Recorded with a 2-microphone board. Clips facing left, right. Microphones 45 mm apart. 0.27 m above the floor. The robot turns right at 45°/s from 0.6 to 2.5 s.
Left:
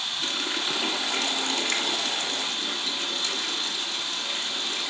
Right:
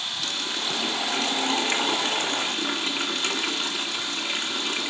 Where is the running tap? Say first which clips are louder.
Left 1 dB; 160° left, 1.9 m; by 4.9 s 115° right, 1.9 m.